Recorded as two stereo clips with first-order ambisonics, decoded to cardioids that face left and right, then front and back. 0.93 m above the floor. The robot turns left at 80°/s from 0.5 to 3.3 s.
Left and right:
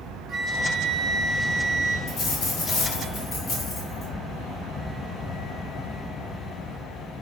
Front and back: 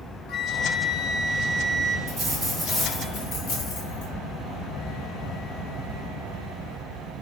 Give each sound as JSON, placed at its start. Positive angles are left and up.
{"t": 0.3, "sound": "a flute", "azimuth_deg": -25, "distance_m": 0.5}
{"t": 2.1, "sound": "a dropped coin", "azimuth_deg": 140, "distance_m": 1.6}